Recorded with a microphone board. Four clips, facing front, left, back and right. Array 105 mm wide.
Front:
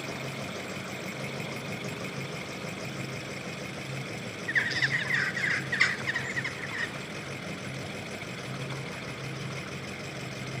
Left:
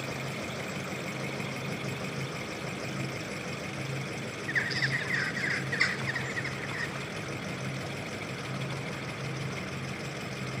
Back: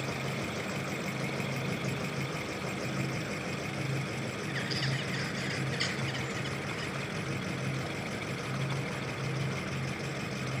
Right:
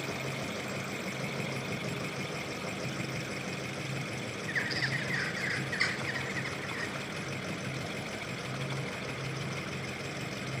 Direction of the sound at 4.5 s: 20° left.